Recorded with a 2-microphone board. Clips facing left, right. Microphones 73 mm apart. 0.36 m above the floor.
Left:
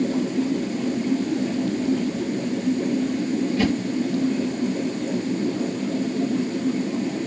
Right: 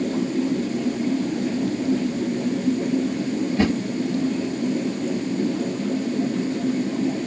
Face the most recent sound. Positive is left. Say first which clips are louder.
# right 2 dB
turn(degrees=-35)  # may be behind; listen again after turning